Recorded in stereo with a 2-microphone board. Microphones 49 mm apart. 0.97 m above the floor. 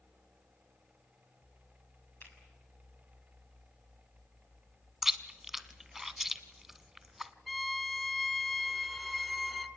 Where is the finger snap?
40° left (ahead or behind), 7 m.